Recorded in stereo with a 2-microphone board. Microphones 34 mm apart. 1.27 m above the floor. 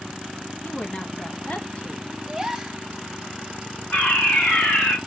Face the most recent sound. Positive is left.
turn(degrees=45)  # may be behind; listen again after turning